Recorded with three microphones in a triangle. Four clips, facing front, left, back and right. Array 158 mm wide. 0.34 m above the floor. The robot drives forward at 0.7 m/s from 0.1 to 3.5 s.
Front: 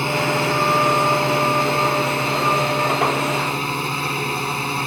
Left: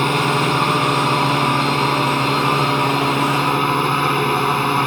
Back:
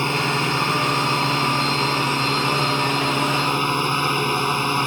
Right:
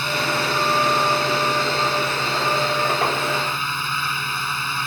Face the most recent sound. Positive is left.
turn(degrees=100)